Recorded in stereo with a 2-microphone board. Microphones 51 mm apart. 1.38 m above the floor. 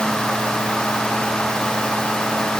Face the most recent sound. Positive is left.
No sound to turn to.